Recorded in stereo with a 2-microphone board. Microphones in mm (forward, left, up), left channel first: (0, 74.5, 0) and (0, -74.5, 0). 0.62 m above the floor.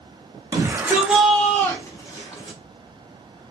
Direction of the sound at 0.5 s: 25° right (ahead or behind).